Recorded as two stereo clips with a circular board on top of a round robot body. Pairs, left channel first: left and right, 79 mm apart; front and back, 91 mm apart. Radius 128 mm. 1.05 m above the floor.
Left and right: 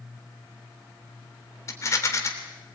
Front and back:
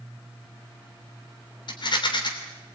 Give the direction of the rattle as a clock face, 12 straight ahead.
11 o'clock.